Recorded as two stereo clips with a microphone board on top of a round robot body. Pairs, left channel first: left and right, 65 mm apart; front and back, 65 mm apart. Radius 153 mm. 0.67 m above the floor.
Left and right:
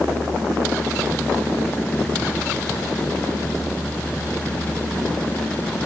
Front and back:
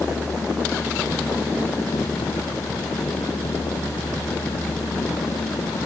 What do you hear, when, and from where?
Only background noise.